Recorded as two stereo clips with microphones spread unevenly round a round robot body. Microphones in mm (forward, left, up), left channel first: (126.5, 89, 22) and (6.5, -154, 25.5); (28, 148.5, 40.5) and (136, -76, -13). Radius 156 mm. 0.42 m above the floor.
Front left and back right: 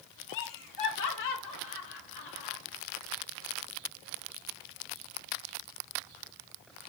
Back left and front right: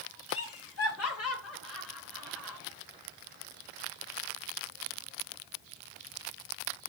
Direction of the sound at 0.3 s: 80° left.